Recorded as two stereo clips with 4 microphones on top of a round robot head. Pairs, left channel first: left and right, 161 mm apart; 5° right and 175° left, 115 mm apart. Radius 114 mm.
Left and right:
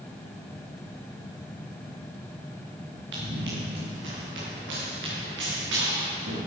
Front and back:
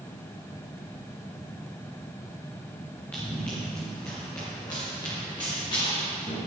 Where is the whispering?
I don't hear whispering.